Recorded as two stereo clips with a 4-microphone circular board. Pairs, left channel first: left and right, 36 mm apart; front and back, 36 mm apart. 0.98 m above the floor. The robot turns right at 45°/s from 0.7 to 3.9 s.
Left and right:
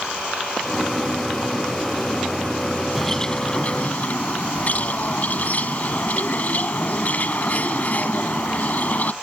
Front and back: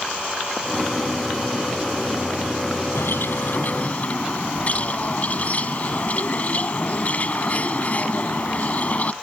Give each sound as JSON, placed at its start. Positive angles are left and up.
{"t": 3.0, "sound": "a bird", "azimuth_deg": 5}